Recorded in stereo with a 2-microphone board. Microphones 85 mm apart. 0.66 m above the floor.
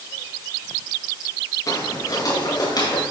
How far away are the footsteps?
About 5.5 m.